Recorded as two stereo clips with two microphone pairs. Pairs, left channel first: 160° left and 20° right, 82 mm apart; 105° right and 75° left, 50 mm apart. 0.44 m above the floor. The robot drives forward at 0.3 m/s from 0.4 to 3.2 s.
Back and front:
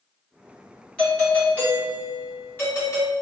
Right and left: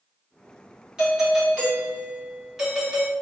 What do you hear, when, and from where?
1.0 s a doorbell: 115° left, 1.6 m; by 3.1 s 150° left, 1.8 m